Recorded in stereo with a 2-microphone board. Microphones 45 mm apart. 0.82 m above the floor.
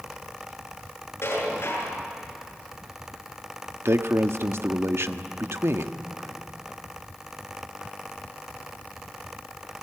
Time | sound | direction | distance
1.2 | dishes clattering | 75° left (ahead or behind) | 8 m
3.9 | a man speaking | 70° right (ahead or behind) | 1.1 m